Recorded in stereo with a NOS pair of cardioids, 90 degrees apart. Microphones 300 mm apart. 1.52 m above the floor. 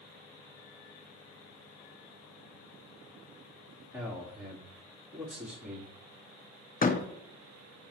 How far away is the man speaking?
About 3 m.